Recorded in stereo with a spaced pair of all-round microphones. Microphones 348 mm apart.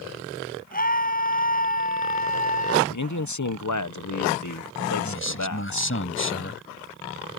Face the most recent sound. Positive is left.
turn(degrees=40)  # may be behind; listen again after turning